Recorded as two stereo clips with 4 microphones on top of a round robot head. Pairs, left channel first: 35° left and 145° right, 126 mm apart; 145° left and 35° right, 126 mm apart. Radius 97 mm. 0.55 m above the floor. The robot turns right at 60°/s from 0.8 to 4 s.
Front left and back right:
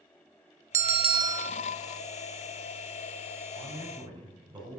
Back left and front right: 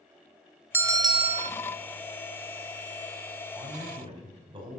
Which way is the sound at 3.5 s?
115° right.